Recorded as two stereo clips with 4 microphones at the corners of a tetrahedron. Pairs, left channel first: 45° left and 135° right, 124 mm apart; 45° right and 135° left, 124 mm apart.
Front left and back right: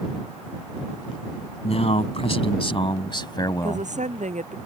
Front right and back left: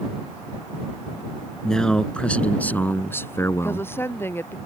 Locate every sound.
1.6 s a man speaking: 40° left; by 3.9 s straight ahead
3.6 s a woman speaking: 115° right